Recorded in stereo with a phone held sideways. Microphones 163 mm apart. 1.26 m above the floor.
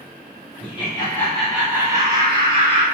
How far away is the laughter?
About 0.6 m.